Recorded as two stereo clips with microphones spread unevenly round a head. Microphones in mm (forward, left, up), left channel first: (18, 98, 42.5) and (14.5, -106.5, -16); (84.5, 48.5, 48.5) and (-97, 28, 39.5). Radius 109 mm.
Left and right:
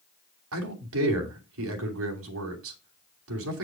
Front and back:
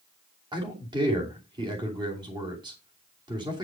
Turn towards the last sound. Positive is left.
turn(degrees=-105)